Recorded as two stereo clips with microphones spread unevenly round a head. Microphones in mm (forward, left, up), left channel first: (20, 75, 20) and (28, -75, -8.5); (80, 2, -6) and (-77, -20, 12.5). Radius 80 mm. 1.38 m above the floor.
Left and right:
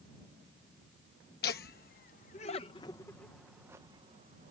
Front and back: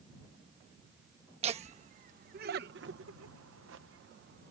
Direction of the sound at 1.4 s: 130° left.